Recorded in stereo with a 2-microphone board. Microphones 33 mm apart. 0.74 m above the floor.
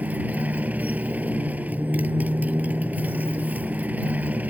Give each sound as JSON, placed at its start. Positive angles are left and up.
{"t": 0.0, "sound": "a motorcycle", "side_deg": -55}